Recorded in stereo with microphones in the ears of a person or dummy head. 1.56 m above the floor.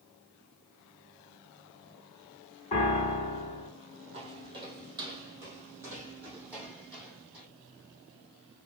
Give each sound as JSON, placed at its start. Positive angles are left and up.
{"t": 2.7, "sound": "a piano", "side_deg": 35, "distance_m": 2.0}
{"t": 4.1, "sound": "footsteps", "side_deg": -25, "distance_m": 2.5}